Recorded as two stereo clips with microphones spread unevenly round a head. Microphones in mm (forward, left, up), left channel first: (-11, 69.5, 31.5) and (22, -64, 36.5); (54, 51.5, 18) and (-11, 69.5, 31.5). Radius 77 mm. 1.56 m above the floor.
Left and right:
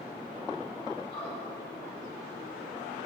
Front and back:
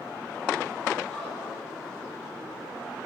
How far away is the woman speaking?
About 4.5 m.